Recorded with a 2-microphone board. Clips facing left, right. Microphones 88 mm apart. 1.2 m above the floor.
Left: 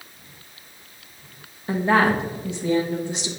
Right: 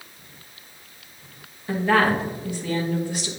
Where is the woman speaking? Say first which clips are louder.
Left 1 dB; 25° left (ahead or behind), 1.3 m.